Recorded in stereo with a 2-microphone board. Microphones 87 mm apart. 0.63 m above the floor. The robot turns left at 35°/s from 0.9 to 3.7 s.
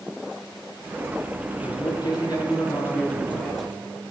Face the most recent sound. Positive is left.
turn(degrees=-5)